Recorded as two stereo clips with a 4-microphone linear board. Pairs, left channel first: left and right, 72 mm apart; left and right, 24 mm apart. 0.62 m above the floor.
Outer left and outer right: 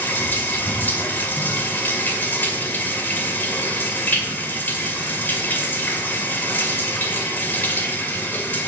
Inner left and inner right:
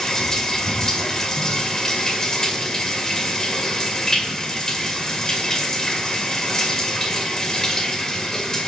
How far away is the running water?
About 2.0 m.